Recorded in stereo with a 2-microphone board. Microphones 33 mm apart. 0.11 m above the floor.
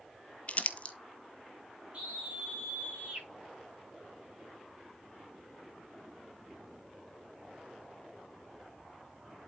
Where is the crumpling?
35° left (ahead or behind), 0.8 m.